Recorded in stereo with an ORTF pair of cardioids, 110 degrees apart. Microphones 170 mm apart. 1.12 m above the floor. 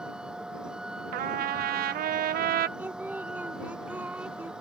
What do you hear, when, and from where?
0.0 s a vehicle: 5° right
1.1 s a trumpet: 55° right
2.8 s singing: 10° right